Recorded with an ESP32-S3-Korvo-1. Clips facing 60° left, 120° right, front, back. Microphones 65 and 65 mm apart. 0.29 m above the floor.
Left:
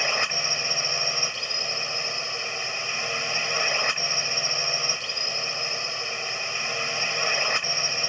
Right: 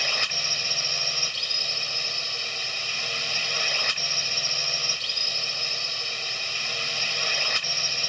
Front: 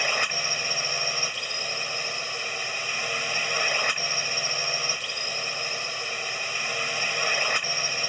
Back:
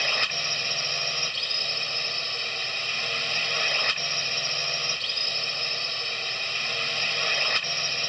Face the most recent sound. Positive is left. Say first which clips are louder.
# left 3 dB, front 2 dB
turn(degrees=50)